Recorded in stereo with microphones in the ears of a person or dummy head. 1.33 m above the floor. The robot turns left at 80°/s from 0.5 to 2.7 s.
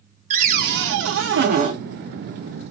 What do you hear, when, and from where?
0.3 s a cupboard door: 40° right, 0.5 m; by 1.8 s 140° right, 0.5 m